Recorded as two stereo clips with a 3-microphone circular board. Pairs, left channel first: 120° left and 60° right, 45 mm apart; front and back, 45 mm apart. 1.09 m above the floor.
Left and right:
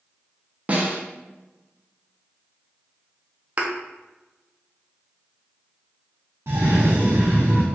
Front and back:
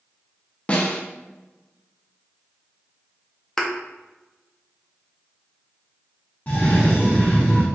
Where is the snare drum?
35° right, 0.6 m.